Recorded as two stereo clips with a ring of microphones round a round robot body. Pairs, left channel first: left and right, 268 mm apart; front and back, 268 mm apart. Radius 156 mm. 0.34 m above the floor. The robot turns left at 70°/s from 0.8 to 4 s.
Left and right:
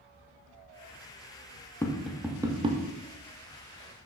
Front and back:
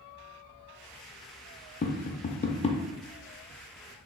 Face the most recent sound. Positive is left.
turn(degrees=-135)